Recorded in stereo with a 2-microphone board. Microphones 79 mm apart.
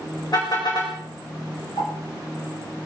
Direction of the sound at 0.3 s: 55° left (ahead or behind).